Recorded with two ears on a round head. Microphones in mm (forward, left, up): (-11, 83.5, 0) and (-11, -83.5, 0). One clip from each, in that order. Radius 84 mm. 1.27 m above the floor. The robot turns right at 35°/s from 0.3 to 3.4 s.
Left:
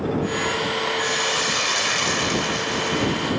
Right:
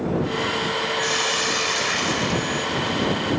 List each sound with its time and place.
1.0 s a hiss: 10° right; by 3.3 s 70° left